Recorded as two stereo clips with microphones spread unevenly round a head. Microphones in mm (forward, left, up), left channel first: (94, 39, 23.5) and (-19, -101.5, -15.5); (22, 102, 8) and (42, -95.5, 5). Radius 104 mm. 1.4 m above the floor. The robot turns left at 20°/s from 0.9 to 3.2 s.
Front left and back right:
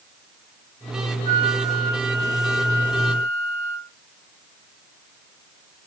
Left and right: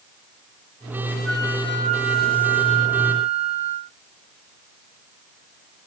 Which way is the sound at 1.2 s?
175° right.